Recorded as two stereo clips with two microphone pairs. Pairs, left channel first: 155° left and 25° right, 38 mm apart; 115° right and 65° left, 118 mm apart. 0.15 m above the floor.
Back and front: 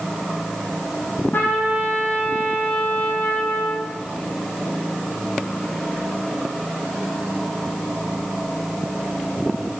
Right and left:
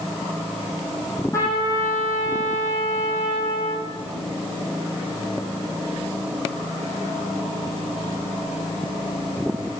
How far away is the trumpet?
About 6.5 m.